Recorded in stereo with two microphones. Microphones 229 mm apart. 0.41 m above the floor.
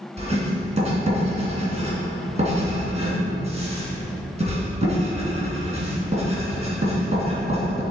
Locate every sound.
0.2 s writing: 30° right (ahead or behind), 3 m